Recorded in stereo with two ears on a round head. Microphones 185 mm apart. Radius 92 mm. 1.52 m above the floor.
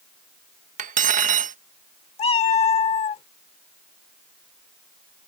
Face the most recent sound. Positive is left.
turn(degrees=30)  # may be behind; listen again after turning